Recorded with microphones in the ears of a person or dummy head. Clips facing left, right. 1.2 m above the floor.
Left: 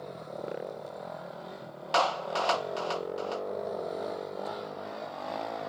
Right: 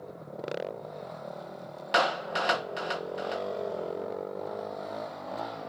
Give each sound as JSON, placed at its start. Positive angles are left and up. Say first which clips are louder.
{"t": 1.9, "sound": "a clap", "louder": "even", "side_deg": -20}